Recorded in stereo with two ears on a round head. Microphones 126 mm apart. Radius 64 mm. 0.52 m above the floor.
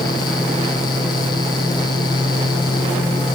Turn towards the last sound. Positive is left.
No sound to turn to.